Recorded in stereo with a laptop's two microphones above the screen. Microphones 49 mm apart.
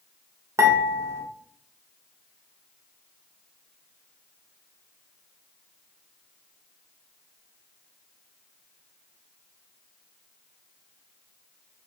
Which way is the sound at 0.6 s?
75° right (ahead or behind).